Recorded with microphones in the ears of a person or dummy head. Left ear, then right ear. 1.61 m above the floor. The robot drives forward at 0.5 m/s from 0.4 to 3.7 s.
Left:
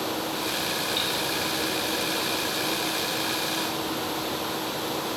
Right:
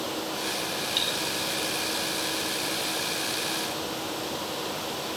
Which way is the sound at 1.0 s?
20° right (ahead or behind).